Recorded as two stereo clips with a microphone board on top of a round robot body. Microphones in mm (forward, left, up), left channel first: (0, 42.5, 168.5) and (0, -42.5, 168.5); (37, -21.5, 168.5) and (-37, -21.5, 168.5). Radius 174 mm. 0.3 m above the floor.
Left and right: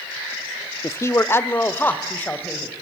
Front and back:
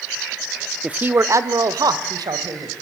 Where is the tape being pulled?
No tape being pulled in this recording.